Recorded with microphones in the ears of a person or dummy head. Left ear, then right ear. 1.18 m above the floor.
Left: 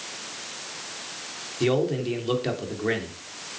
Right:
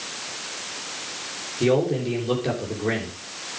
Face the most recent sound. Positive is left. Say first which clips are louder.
# right 3 dB
turn(degrees=25)  # may be behind; listen again after turning